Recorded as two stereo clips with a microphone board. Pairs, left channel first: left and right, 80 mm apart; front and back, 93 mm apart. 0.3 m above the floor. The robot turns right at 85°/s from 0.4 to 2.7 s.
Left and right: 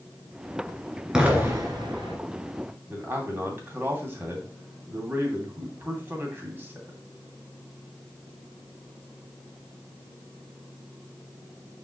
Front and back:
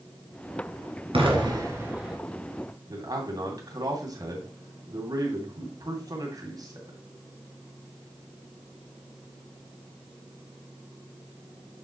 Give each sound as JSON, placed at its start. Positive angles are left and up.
{"t": 1.1, "sound": "an explosion", "azimuth_deg": -170, "distance_m": 2.5}
{"t": 2.9, "sound": "a man speaking", "azimuth_deg": -145, "distance_m": 2.5}